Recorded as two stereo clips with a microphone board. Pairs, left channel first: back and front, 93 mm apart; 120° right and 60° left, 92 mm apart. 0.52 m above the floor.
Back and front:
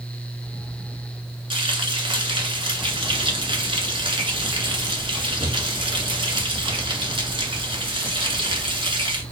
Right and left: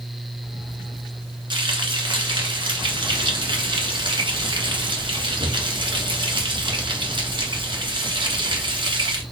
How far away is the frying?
About 1.4 m.